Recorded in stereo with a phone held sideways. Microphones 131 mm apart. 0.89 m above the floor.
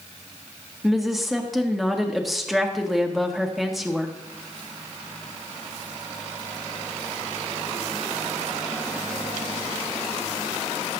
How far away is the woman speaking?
About 1.6 m.